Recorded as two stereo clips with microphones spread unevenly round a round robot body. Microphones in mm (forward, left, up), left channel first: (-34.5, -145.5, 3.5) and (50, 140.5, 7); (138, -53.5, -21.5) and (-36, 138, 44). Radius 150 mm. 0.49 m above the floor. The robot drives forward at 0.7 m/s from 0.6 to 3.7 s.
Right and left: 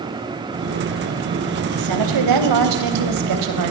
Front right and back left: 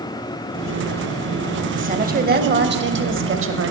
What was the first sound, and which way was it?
A woman speaking, 70° left.